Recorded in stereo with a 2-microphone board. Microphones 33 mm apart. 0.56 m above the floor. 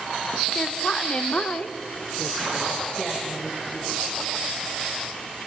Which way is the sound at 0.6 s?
20° left (ahead or behind).